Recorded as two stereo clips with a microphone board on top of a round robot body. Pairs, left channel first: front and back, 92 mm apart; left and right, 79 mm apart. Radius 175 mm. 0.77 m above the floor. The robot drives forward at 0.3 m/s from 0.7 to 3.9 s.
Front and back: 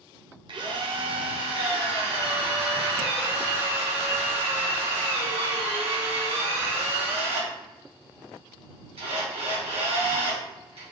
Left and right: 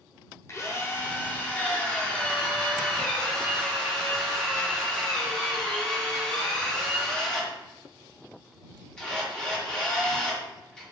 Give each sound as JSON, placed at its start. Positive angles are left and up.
{"t": 0.5, "sound": "a drill", "azimuth_deg": 145, "distance_m": 0.6}